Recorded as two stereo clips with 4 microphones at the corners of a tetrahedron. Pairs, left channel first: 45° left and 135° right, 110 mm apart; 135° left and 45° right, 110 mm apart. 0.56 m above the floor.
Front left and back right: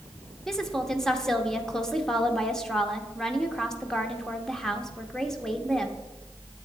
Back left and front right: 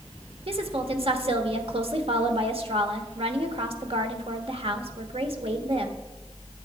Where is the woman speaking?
40° right, 1.1 m.